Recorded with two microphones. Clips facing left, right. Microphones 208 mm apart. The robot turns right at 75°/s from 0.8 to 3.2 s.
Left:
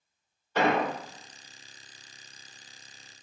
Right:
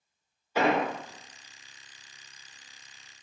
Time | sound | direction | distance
0.6 | an explosion | 10° right (ahead or behind) | 0.7 m